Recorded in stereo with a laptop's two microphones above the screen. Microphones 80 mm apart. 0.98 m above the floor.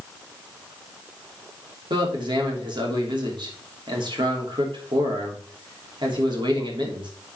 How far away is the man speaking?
About 3 m.